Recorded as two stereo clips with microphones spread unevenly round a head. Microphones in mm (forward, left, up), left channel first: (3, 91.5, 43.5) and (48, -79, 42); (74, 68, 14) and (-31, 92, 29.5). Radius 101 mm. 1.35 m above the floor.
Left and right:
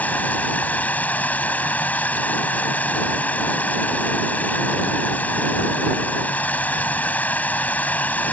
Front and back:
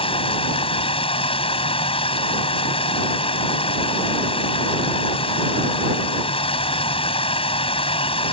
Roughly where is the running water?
Ahead left.